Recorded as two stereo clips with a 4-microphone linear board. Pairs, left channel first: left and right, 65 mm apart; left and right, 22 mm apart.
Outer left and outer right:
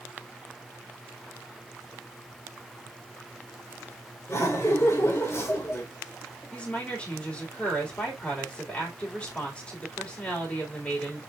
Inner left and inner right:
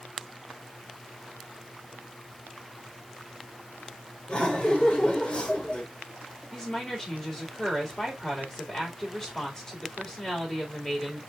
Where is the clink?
I don't hear a clink.